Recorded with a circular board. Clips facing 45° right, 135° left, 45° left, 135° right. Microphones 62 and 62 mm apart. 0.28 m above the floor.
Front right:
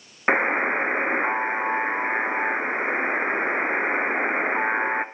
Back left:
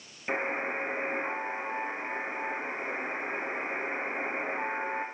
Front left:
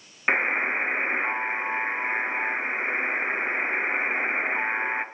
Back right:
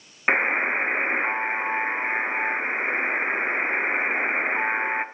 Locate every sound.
0.3 s a buzzer: 60° right, 0.5 m